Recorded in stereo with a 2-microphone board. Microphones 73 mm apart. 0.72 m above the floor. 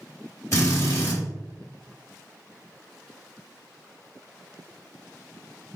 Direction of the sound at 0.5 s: 40° left (ahead or behind).